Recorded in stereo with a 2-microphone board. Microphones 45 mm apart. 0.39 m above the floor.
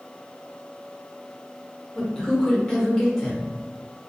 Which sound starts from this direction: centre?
A man speaking, at 1.9 s.